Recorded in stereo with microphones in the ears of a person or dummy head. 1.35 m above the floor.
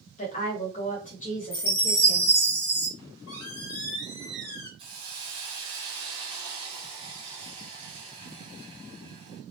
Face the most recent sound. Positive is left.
turn(degrees=-30)  # may be behind; listen again after turning